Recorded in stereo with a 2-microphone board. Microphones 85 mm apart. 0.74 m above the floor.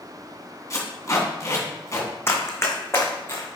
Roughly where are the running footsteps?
Left.